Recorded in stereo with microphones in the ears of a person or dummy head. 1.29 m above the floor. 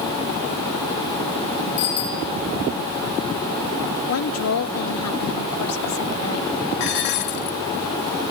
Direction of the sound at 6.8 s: 60° left (ahead or behind).